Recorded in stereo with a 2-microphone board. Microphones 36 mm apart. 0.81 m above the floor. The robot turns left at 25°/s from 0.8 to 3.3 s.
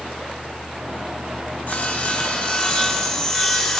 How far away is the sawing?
About 2.5 m.